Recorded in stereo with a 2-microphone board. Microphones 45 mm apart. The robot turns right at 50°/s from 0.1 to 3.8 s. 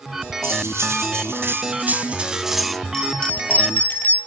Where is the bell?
10° left, 3 m; by 4.2 s 50° left, 3 m.